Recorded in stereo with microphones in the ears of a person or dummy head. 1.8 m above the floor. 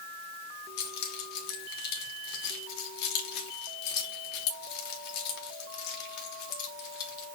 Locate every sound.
0.8 s keys jangling: 60° left (ahead or behind), 1.5 m